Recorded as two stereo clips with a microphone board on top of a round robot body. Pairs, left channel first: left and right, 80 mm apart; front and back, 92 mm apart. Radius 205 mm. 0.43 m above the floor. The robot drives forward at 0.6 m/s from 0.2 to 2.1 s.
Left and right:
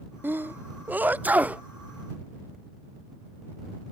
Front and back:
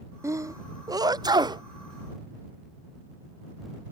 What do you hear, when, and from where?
0.2 s a sneeze: 140° right; by 1.6 s 160° right